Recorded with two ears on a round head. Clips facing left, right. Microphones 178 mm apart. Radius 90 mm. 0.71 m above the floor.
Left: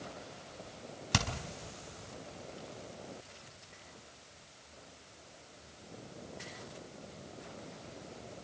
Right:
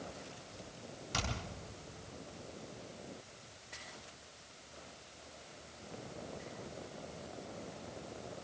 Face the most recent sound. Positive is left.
turn(degrees=85)